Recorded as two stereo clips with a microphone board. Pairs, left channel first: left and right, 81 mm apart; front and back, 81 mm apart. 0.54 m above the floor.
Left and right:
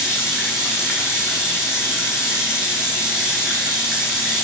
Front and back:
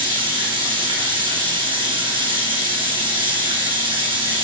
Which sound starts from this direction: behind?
Running water, at 0.0 s.